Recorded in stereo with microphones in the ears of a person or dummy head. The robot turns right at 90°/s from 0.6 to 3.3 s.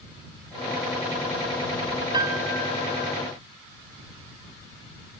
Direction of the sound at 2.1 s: 25° right.